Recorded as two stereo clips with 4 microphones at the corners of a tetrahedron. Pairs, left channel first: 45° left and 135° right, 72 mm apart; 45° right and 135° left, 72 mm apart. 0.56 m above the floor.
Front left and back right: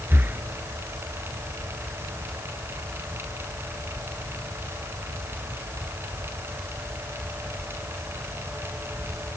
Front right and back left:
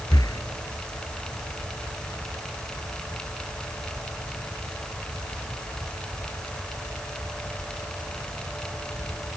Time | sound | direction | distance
0.1 | breathing | 75° right | ?